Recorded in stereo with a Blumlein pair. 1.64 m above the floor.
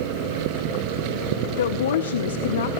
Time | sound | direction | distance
1.6 | a woman speaking | 60° left | 1.4 m